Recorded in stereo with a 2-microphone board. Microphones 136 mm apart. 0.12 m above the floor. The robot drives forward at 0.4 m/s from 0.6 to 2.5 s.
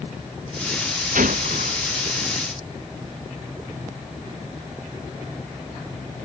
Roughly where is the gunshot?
Right.